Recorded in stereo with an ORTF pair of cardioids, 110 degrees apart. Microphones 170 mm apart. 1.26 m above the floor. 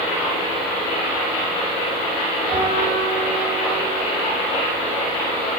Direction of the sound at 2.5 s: 40° right.